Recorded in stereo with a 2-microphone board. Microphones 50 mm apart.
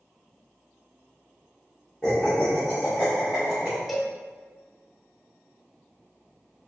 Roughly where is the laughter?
Centre.